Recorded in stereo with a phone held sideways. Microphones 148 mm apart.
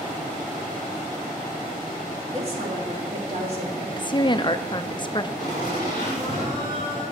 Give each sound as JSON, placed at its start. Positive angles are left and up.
{"t": 2.3, "sound": "a woman speaking", "side_deg": -45, "distance_m": 2.5}
{"t": 4.0, "sound": "a woman speaking", "side_deg": 30, "distance_m": 0.6}
{"t": 5.4, "sound": "laughter", "side_deg": -45, "distance_m": 4.0}